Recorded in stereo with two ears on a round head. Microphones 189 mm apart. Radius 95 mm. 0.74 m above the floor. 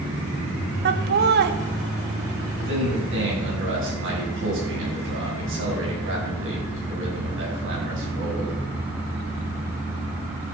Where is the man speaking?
70° right (ahead or behind), 6.5 m.